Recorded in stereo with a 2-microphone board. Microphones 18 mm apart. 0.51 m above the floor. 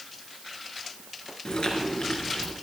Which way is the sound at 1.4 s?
65° left (ahead or behind).